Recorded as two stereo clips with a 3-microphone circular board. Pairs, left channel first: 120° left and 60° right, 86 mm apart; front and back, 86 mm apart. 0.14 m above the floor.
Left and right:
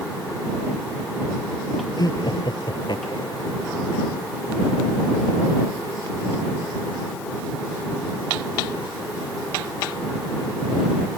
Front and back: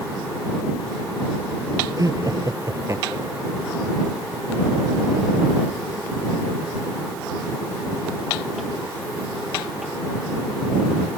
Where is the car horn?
I don't hear a car horn.